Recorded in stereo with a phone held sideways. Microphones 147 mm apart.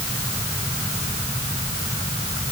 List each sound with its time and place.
Only background noise.